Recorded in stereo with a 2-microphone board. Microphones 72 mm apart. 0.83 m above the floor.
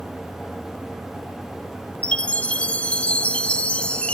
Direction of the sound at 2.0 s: 15° left (ahead or behind).